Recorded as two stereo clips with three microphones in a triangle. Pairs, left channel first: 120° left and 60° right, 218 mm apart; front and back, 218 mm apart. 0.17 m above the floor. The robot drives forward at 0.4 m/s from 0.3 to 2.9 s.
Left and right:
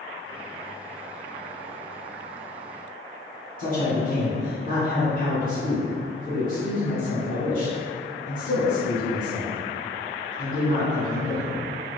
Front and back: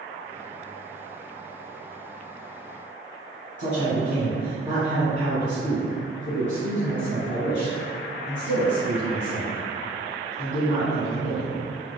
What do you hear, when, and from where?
3.6 s a man speaking: 140° left, 1.3 m